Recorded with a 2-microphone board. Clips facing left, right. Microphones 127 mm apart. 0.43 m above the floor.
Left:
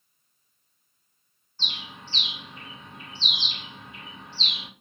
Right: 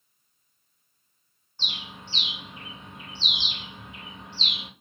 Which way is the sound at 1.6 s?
20° right (ahead or behind).